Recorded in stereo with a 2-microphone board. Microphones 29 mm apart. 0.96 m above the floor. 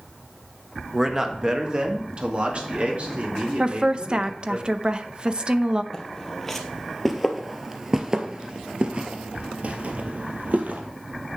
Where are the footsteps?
15° left (ahead or behind), 1.8 m; by 10.8 s 60° right (ahead or behind), 1.9 m.